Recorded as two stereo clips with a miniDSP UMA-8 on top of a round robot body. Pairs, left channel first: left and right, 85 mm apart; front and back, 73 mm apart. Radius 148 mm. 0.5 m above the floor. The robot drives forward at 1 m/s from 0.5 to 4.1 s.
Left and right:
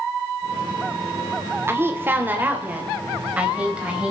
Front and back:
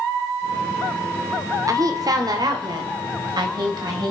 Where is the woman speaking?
150° right, 2 m; by 4.1 s 165° right, 4 m.